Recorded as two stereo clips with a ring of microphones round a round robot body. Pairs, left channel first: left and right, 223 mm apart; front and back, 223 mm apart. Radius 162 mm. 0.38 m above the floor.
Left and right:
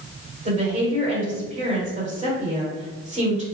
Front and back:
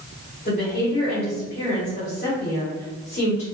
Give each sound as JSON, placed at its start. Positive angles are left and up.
{"t": 0.5, "sound": "a woman speaking", "azimuth_deg": -45, "distance_m": 1.7}